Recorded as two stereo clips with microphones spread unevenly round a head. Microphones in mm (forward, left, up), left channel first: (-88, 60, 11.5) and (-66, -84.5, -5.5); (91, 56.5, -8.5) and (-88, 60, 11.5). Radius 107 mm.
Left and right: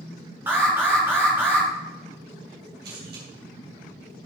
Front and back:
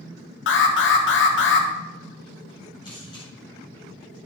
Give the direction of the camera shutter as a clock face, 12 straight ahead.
2 o'clock.